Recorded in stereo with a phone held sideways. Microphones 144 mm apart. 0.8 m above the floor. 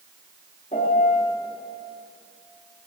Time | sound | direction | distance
0.7 | a piano | 60° left (ahead or behind) | 1.9 m